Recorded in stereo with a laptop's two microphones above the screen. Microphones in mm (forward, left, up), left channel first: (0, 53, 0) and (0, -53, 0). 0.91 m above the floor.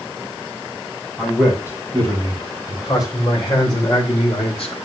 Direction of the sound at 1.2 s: 20° left (ahead or behind).